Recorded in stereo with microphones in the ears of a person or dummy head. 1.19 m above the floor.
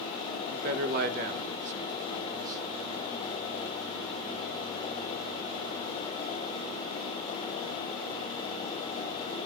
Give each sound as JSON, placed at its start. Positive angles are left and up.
{"t": 0.5, "sound": "a man speaking", "side_deg": -55, "distance_m": 1.5}